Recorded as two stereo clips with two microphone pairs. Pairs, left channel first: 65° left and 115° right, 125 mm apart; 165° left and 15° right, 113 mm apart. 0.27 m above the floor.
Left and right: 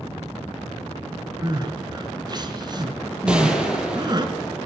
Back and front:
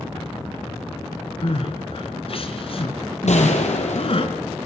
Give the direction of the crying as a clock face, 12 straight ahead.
6 o'clock.